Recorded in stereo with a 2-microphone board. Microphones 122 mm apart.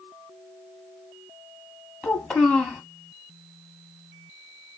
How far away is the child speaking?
About 1.0 m.